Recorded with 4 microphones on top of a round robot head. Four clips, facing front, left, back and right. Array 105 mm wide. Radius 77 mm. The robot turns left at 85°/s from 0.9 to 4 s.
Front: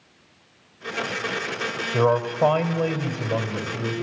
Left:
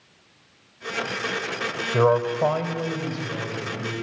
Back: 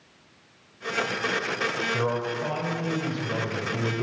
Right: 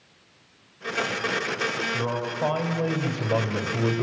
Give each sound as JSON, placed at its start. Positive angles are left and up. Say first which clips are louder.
{"t": 1.9, "sound": "a man speaking", "louder": "left 8 dB, front 12 dB", "azimuth_deg": 70, "distance_m": 2.0}